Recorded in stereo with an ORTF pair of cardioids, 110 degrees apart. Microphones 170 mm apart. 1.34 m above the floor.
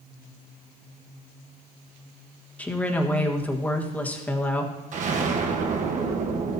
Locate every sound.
2.6 s a woman speaking: 10° left, 1.4 m
4.9 s an explosion: 50° right, 1.2 m